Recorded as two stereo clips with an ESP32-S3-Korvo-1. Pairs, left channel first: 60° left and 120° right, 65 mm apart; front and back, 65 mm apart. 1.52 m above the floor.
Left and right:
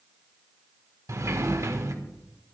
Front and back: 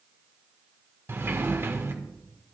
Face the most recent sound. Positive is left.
turn(degrees=-135)